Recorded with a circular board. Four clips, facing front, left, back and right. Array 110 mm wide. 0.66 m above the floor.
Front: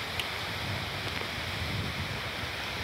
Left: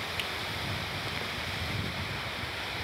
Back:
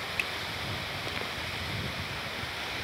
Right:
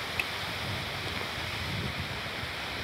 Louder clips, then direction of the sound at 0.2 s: Right 1 dB, back 2 dB; 145° right.